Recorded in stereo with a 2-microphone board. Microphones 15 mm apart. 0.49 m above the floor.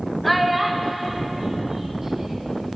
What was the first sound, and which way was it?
A child speaking, 5° left (ahead or behind).